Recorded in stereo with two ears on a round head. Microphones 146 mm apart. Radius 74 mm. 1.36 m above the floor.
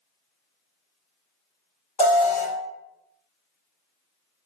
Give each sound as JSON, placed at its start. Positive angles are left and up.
{"t": 2.0, "sound": "an alarm", "side_deg": 30, "distance_m": 1.7}